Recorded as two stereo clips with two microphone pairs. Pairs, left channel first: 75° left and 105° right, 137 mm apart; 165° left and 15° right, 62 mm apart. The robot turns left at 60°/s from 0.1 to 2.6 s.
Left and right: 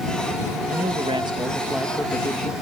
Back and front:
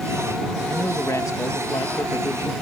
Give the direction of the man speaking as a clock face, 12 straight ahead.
4 o'clock.